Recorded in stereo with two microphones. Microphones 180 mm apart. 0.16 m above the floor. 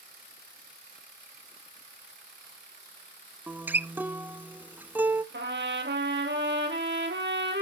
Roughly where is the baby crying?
No baby crying in this recording.